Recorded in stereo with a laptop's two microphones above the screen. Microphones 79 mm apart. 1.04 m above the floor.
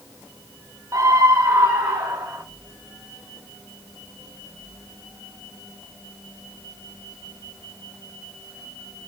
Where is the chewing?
No chewing in this recording.